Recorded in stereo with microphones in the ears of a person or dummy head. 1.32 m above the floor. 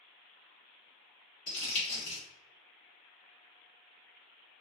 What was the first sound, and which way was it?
Crumpling, 75° left (ahead or behind).